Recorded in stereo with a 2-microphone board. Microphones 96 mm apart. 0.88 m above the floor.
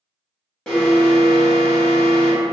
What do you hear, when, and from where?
0.7 s an alarm: 10° left (ahead or behind), 0.8 m